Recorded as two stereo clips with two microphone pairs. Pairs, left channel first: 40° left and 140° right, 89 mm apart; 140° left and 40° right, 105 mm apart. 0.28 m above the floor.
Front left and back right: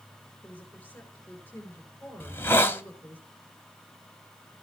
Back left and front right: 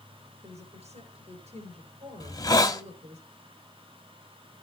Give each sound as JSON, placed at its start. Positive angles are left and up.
{"t": 0.4, "sound": "a woman speaking", "azimuth_deg": -30, "distance_m": 5.5}
{"t": 2.2, "sound": "a hiss", "azimuth_deg": 100, "distance_m": 1.3}